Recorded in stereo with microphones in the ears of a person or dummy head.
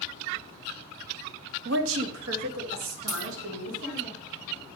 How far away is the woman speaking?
About 1.1 m.